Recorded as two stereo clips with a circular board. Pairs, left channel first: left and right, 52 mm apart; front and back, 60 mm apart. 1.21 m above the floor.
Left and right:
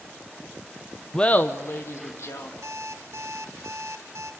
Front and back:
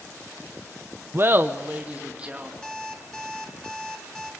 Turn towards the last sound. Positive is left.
turn(degrees=-85)